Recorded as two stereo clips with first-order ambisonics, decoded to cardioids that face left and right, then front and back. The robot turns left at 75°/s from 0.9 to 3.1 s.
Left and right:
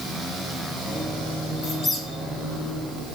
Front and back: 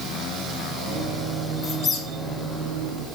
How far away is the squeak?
About 0.6 m.